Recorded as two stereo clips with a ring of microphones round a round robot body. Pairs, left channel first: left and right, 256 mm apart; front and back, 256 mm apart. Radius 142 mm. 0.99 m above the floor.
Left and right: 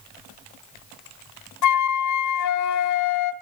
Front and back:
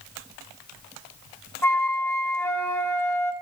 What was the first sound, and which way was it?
A flute, 80° left.